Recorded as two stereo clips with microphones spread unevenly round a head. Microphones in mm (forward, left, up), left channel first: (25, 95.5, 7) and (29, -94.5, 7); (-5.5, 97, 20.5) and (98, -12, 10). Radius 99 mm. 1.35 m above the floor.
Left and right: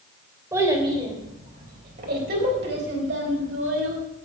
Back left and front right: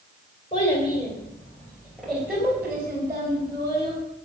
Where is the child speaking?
165° right, 3 m; by 4.0 s 115° right, 5 m.